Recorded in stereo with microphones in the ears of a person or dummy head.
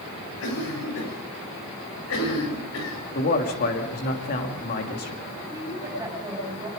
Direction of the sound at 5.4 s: 15° right (ahead or behind).